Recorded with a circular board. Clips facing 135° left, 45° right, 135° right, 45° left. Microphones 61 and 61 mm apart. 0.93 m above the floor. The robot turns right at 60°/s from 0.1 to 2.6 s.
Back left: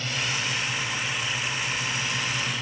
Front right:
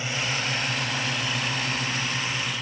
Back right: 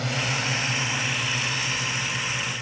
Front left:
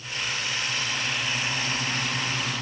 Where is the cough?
No cough in this recording.